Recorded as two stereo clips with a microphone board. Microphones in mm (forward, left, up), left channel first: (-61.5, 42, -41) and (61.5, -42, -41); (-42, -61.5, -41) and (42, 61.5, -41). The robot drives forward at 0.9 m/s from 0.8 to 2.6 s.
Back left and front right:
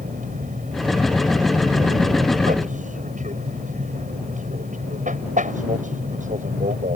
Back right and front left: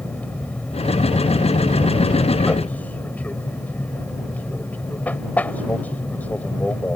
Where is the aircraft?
45° right.